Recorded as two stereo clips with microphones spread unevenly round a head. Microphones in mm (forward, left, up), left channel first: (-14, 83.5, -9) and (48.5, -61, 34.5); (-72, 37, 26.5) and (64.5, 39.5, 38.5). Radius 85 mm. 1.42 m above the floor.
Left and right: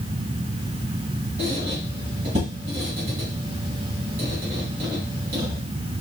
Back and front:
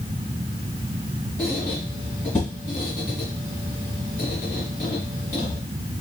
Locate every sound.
1.4 s a squeak: 100° right, 1.2 m